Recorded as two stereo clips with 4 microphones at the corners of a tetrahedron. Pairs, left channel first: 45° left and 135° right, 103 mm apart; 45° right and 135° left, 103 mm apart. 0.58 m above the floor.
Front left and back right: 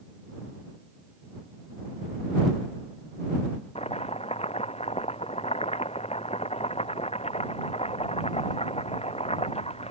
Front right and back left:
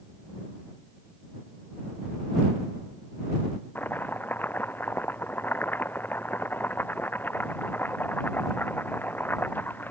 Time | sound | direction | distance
3.8 | chopping | 25° left | ?